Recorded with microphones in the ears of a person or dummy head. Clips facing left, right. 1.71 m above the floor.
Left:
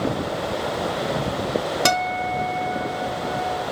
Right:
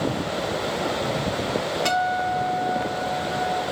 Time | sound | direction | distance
1.9 | a guitar | 75° left (ahead or behind) | 0.9 m